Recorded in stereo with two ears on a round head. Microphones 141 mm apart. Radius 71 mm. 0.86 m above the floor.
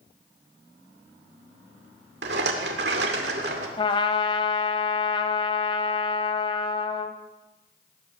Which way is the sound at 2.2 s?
75° right (ahead or behind).